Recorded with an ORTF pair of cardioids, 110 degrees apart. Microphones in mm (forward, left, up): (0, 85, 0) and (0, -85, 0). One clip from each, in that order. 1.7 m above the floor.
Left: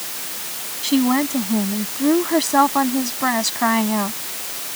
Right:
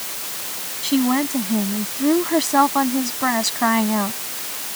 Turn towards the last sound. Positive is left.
turn(degrees=0)